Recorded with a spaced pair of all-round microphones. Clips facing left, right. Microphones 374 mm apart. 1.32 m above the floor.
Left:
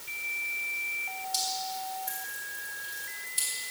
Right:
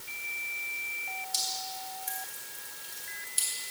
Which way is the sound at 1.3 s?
75° left (ahead or behind).